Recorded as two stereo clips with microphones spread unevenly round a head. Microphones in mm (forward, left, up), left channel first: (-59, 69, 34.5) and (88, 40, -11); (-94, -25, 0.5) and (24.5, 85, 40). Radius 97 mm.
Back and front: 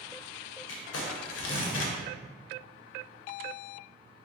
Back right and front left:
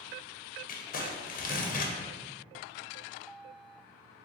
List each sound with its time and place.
0.7 s crumpling: 170° right, 0.6 m